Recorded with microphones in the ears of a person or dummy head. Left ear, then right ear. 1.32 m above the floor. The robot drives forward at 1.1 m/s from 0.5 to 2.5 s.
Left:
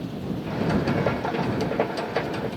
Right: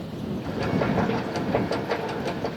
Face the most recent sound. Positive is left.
No sound to turn to.